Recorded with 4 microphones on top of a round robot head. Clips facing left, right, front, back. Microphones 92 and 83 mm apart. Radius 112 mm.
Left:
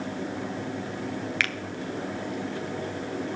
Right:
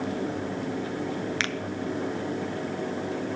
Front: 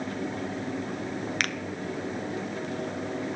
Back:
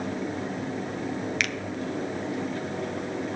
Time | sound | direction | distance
1.4 | a finger snap | 30° right | 0.7 m